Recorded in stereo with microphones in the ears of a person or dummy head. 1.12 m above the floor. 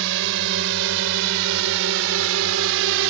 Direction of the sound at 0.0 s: 70° right (ahead or behind).